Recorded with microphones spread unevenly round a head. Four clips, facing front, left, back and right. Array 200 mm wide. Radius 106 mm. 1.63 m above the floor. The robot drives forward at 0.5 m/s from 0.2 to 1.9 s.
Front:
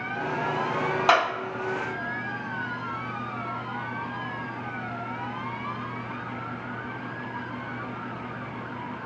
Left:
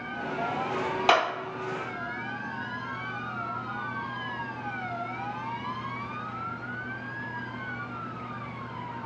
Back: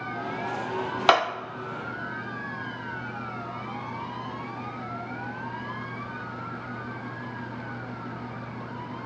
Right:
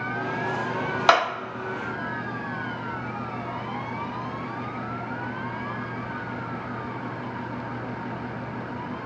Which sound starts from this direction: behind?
A clap, at 1.1 s.